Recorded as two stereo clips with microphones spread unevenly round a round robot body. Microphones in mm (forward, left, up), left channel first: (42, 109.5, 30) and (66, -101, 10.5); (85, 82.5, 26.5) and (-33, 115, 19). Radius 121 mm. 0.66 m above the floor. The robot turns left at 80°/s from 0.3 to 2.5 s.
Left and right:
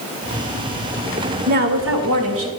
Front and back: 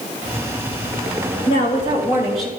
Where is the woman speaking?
40° right, 2.5 m; by 2.5 s 120° right, 2.5 m.